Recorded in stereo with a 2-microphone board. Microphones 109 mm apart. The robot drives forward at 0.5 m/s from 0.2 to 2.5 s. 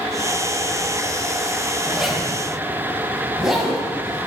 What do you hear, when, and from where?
1.9 s a zipper: 5° right (ahead or behind), 0.9 m; by 4.3 s centre (ahead or behind), 1.2 m